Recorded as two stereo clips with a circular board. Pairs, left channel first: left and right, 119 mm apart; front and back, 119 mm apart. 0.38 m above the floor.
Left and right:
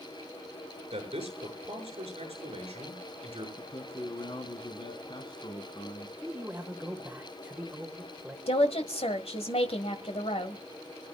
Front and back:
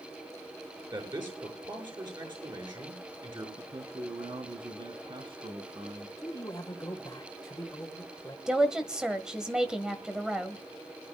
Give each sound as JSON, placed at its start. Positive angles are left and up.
{"t": 0.9, "sound": "a man speaking", "azimuth_deg": -130, "distance_m": 6.5}
{"t": 3.6, "sound": "a man speaking", "azimuth_deg": 140, "distance_m": 3.0}
{"t": 6.2, "sound": "a man speaking", "azimuth_deg": -25, "distance_m": 1.7}
{"t": 8.5, "sound": "a woman speaking", "azimuth_deg": 95, "distance_m": 1.6}